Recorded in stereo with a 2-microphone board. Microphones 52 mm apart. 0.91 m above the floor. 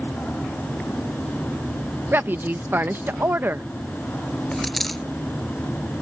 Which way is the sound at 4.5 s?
Centre (ahead or behind).